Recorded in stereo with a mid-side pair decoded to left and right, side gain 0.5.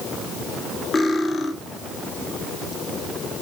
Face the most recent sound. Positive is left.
turn(degrees=40)